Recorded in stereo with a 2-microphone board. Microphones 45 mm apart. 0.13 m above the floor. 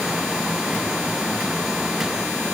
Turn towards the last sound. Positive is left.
No sound to turn to.